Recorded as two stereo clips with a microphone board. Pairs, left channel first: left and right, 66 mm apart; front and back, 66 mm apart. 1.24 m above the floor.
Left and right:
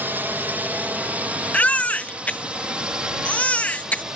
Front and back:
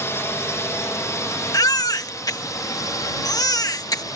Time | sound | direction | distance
0.0 | a drone | 40° right | ?
1.5 | a baby crying | 20° left | ?